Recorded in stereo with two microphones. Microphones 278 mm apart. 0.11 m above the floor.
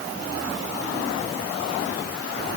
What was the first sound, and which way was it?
Only background noise.